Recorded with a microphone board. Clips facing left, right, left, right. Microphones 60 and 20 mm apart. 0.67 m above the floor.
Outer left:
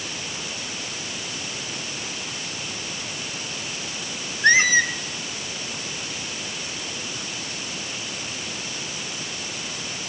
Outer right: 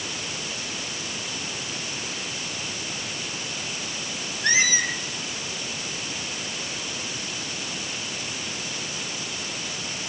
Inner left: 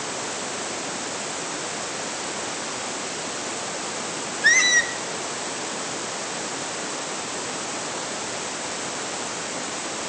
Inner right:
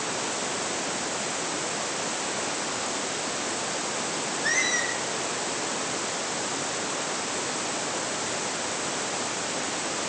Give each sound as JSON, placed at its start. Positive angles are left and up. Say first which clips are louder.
{"t": 4.4, "sound": "a squeak", "louder": "outer left 6 dB, inner left 9 dB", "side_deg": 50, "distance_m": 1.3}